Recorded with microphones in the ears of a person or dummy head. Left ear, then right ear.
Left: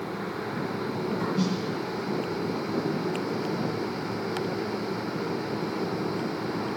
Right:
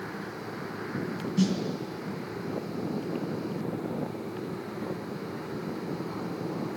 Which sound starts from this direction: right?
A snare drum, at 1.4 s.